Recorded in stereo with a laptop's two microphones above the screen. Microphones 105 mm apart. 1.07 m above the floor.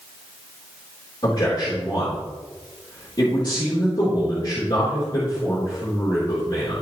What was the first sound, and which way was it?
A man speaking, 50° left (ahead or behind).